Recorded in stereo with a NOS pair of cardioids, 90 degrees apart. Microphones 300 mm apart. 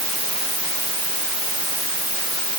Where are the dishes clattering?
I don't hear dishes clattering.